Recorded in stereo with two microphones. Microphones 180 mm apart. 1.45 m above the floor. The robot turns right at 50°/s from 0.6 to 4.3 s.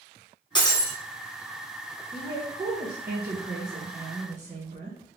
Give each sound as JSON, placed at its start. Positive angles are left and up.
{"t": 0.6, "sound": "breaking glass", "side_deg": 25, "distance_m": 0.8}
{"t": 2.1, "sound": "a woman speaking", "azimuth_deg": -155, "distance_m": 0.7}